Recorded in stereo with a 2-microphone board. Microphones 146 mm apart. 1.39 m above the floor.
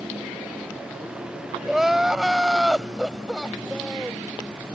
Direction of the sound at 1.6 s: 5° right (ahead or behind).